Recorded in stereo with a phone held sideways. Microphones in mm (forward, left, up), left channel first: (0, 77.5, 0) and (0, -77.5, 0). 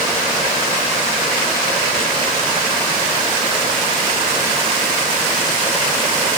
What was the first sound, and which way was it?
Only background noise.